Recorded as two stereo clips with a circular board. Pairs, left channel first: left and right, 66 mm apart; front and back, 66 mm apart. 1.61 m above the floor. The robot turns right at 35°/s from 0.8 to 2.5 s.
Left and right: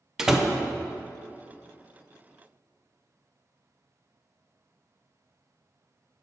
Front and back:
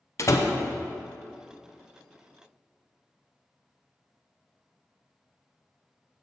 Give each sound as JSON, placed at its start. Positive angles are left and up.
{"t": 0.2, "sound": "a door slam", "azimuth_deg": -10, "distance_m": 0.5}